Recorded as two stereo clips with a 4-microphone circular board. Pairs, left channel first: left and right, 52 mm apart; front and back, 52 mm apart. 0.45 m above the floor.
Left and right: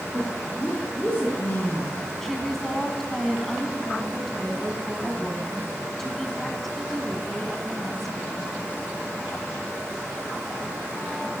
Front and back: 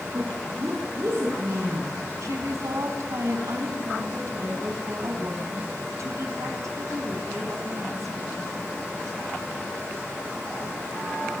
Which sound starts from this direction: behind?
A woman speaking, at 2.2 s.